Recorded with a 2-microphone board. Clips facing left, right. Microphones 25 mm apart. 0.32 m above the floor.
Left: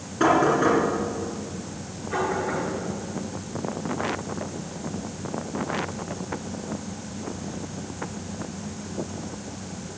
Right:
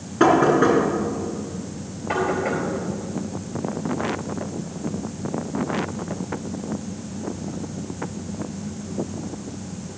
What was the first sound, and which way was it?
Knocking, 15° right (ahead or behind).